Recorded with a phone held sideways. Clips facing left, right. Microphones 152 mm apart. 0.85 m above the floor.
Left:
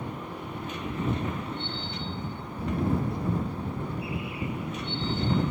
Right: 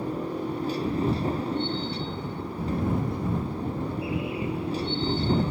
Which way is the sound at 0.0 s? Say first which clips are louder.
Right 7 dB; 35° right (ahead or behind).